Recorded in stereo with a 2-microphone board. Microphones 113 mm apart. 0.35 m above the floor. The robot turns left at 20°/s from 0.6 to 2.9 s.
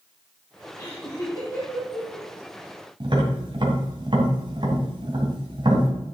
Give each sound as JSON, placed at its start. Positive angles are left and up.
{"t": 0.8, "sound": "laughter", "side_deg": 40, "distance_m": 2.5}
{"t": 3.0, "sound": "tapping", "side_deg": -45, "distance_m": 2.5}